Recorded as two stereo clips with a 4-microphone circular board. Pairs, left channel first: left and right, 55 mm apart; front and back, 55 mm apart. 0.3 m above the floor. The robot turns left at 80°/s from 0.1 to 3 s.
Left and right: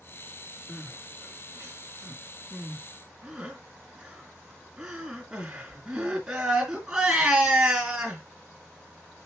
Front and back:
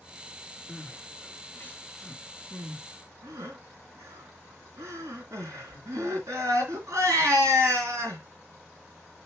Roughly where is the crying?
Ahead.